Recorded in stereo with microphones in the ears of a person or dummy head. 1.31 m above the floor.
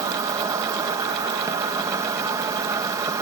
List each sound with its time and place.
0.0 s an insect: 20° right (ahead or behind)